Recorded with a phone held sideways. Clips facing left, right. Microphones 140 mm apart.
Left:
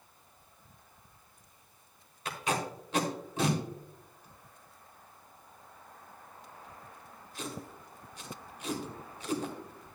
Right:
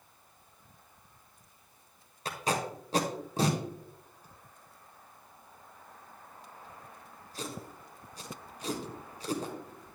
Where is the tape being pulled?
40° right (ahead or behind), 1.5 m.